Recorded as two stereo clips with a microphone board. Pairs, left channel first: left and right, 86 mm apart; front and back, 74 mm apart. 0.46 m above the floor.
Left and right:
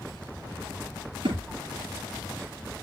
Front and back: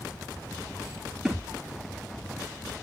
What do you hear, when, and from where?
1.2 s a thud: 90° right, 4.5 m